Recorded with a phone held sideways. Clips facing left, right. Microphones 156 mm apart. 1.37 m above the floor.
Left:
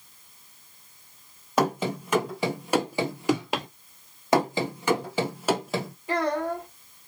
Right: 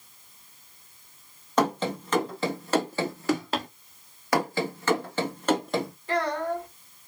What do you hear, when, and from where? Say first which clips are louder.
1.6 s running footsteps: even; 10° left (ahead or behind), 2.0 m; by 3.7 s 15° left (ahead or behind), 1.5 m
4.3 s running footsteps: left 3 dB; 25° left (ahead or behind), 1.4 m; by 5.9 s centre (ahead or behind), 1.6 m
6.1 s a child speaking: left 1 dB; 15° left (ahead or behind), 2 m